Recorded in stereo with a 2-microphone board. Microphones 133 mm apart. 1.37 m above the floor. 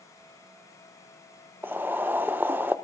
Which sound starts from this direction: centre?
Boiling, at 1.6 s.